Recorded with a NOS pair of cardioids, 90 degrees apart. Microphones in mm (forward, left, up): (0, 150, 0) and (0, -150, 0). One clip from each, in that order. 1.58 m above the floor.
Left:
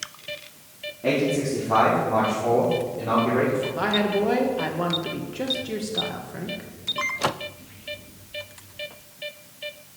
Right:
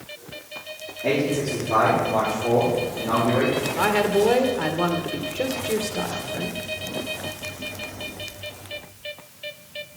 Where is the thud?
I don't hear a thud.